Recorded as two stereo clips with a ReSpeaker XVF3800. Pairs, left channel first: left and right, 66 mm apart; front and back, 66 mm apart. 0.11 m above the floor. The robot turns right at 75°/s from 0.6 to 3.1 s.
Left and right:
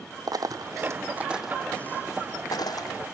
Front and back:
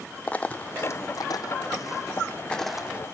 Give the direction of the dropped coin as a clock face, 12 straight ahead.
2 o'clock.